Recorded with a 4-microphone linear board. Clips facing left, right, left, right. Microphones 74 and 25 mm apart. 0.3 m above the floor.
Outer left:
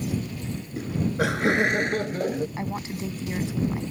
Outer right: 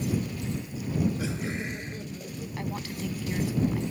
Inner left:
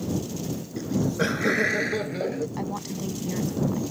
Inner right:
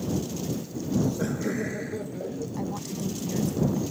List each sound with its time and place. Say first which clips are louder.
0.8 s laughter: outer left 4 dB, inner left 2 dB; 60° left (ahead or behind); by 2.5 s 70° left (ahead or behind)
2.6 s a woman speaking: outer left 3 dB, inner left 1 dB; 25° left (ahead or behind)